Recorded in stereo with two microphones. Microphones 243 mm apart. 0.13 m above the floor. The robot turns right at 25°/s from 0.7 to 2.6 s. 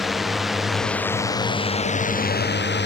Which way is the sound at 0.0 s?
Centre (ahead or behind).